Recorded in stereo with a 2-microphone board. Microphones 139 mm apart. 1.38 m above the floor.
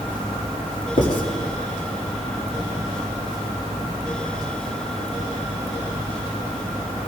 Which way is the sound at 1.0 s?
80° left.